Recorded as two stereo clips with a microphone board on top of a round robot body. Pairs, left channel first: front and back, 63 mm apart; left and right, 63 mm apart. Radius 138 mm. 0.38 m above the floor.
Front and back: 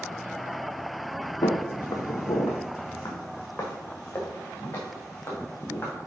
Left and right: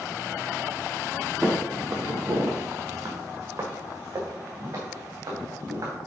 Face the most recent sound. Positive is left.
turn(degrees=-65)